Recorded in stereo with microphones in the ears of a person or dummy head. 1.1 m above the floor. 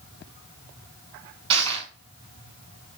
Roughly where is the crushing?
Right.